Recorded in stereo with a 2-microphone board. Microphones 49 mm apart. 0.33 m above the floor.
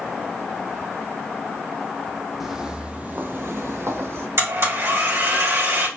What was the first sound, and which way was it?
Footsteps, 5° right (ahead or behind).